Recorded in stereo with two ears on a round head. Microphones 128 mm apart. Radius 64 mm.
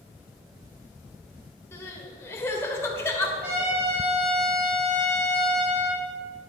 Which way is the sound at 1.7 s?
20° left (ahead or behind).